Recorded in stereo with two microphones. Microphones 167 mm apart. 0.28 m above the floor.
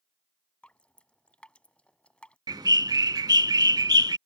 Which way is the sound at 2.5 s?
25° right (ahead or behind).